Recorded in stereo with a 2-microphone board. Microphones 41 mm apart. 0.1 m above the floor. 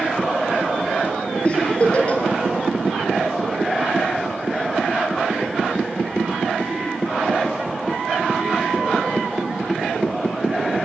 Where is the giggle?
30° left (ahead or behind), 5 m.